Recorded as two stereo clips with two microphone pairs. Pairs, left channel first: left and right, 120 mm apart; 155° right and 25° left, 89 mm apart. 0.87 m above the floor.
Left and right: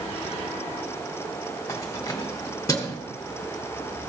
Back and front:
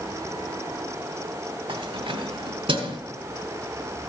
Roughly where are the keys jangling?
Ahead left.